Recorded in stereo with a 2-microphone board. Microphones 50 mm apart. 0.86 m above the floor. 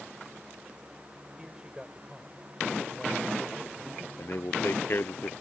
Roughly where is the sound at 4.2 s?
Left.